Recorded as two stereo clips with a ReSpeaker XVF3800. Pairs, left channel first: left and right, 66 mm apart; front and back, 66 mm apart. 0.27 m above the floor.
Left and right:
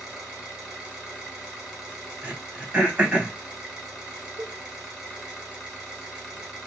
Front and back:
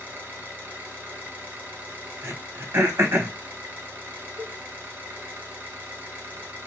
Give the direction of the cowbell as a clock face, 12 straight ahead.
4 o'clock.